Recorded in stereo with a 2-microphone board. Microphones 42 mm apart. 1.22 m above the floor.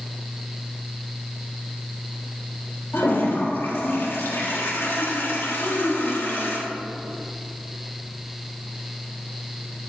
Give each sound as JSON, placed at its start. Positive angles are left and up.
{"t": 2.9, "sound": "a toilet flushing", "side_deg": 65, "distance_m": 1.7}
{"t": 5.6, "sound": "a child speaking", "side_deg": 85, "distance_m": 2.5}